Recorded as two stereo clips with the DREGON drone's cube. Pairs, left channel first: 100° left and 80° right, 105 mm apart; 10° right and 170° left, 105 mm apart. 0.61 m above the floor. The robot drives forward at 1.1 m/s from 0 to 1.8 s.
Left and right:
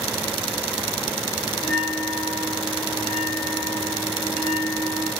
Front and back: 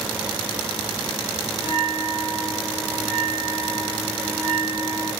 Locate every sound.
1.6 s a bell: 175° right, 2 m